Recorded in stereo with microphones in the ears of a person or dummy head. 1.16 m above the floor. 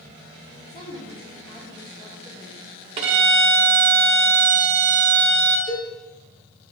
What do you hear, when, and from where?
0.7 s a woman speaking: 20° left (ahead or behind), 2.0 m
3.0 s a violin: 30° right (ahead or behind), 0.7 m
5.7 s a cowbell: 50° left (ahead or behind), 2.5 m